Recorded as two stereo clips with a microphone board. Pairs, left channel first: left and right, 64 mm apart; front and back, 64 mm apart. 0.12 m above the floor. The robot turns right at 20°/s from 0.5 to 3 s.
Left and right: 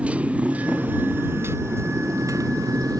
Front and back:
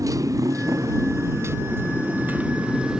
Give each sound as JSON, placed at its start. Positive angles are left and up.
{"t": 0.0, "sound": "a motorcycle", "azimuth_deg": -160}